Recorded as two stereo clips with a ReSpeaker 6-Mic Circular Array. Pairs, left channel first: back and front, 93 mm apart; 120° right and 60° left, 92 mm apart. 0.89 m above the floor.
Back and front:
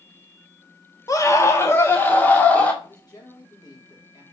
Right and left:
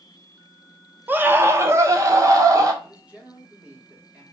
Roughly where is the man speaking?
Behind left.